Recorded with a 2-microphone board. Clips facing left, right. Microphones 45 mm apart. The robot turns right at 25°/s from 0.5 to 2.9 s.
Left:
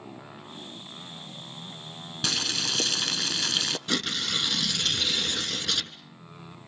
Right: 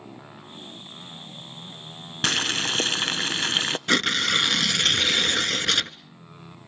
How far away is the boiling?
About 0.5 m.